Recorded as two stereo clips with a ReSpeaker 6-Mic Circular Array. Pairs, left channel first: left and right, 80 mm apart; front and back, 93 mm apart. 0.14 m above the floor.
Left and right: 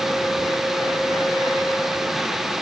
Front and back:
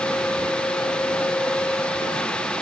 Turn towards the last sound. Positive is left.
No sound to turn to.